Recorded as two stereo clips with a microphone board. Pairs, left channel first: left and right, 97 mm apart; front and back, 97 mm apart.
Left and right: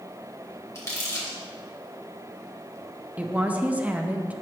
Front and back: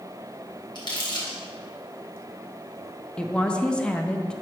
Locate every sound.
0.8 s crumpling: 35° left, 2.5 m
3.2 s a woman speaking: 55° right, 0.5 m